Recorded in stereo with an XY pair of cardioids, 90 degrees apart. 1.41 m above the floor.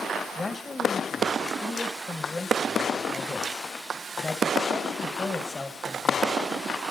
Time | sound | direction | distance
0.3 | a man speaking | 35° left | 2.0 m